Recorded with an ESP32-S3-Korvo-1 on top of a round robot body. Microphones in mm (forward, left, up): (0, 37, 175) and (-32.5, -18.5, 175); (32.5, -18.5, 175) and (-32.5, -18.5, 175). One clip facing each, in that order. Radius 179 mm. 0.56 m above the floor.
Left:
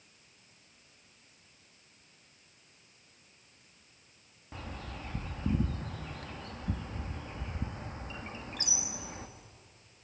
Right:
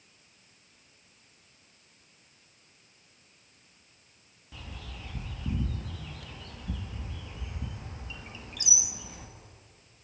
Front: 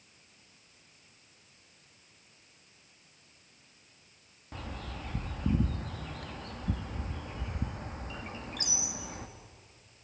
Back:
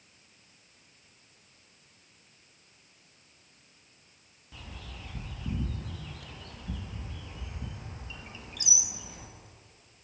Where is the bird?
25° left, 1.7 m.